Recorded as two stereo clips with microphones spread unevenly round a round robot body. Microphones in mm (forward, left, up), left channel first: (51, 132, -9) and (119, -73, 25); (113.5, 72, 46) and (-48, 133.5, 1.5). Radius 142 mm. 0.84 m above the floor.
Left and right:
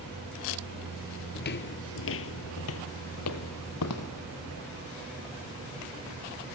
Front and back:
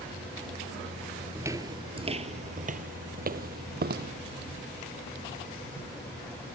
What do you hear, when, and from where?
1.4 s footsteps: 70° left, 1.1 m; by 4.1 s 125° left, 2 m